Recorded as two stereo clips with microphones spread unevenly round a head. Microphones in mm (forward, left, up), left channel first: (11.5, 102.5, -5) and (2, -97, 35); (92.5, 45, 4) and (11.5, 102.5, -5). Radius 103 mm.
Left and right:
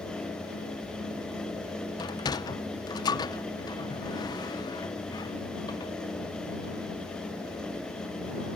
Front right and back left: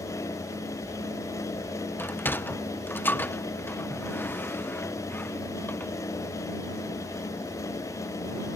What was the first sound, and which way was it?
A sliding door, 10° left.